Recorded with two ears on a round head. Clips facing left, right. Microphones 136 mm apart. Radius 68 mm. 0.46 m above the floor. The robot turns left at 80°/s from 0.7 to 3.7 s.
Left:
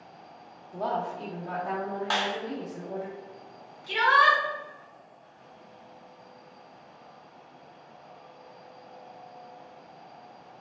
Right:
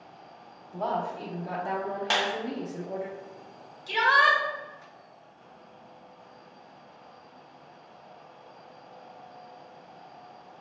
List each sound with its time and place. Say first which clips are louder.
0.7 s a woman speaking: even; 25° left, 0.9 m; by 3.1 s 165° right, 0.9 m
2.1 s a clap: right 1 dB; 25° right (ahead or behind), 0.7 m; by 2.3 s 30° right (ahead or behind), 0.7 m
3.9 s a shout: left 2 dB; 25° right (ahead or behind), 1.8 m